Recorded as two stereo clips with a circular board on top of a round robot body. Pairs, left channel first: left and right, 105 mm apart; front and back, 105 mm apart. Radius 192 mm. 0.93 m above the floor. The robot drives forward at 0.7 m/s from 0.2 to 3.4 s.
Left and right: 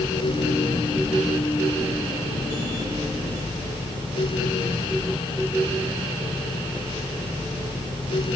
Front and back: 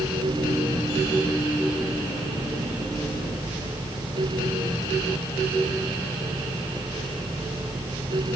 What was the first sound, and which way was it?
Only background noise.